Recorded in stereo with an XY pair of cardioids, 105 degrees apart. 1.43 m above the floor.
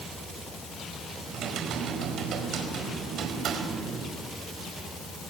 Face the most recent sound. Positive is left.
turn(degrees=-70)